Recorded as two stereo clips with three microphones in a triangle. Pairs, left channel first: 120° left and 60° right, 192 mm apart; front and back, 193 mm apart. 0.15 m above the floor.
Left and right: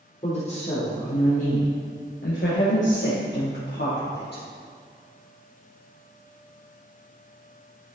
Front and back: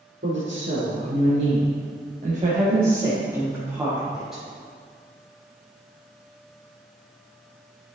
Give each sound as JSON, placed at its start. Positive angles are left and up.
{"t": 0.2, "sound": "a woman speaking", "azimuth_deg": 175, "distance_m": 3.5}